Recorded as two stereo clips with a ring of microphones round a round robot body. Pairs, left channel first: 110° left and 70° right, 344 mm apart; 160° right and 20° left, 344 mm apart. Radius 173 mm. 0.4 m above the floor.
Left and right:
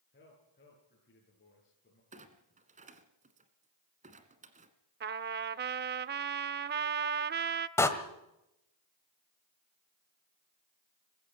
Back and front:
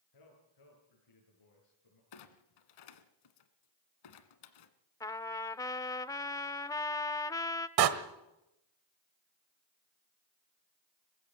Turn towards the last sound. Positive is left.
turn(degrees=30)